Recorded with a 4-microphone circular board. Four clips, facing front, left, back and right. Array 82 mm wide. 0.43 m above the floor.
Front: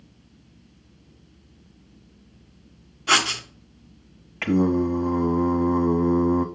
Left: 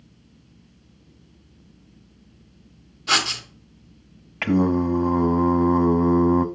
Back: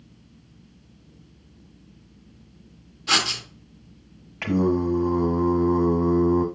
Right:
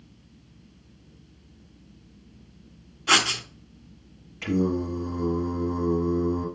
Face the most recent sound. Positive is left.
turn(degrees=85)